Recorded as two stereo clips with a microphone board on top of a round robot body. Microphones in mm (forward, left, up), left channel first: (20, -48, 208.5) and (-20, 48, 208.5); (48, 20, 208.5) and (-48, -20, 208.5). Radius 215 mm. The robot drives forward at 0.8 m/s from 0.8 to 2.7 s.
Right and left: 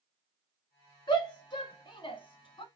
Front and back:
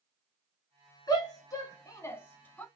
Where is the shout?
25° right, 2.5 m; by 2.6 s 50° right, 1.5 m.